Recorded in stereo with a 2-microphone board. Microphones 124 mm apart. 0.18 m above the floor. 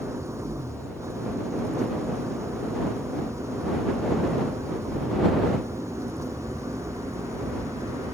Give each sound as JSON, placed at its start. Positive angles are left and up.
{"t": 0.0, "sound": "an engine running", "side_deg": -25}